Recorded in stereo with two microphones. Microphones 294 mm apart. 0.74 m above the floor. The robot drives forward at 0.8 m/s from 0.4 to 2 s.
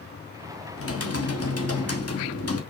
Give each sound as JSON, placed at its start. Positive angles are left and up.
{"t": 0.8, "sound": "typing on a keyboard", "side_deg": 55, "distance_m": 1.6}